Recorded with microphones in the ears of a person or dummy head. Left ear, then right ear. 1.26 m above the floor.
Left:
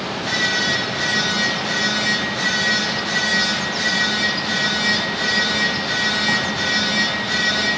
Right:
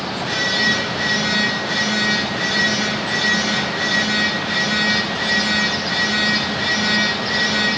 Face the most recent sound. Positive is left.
turn(degrees=50)  # may be behind; listen again after turning